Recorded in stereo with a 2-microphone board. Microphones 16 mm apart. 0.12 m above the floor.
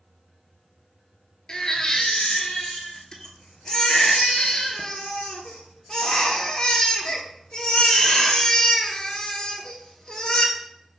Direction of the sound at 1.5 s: 40° left (ahead or behind).